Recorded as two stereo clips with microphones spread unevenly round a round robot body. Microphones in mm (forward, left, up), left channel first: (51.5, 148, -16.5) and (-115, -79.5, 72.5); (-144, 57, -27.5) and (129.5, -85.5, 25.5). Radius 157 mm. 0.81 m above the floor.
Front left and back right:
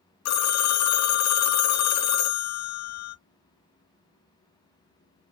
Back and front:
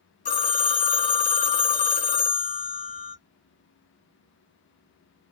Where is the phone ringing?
85° left, 0.5 m.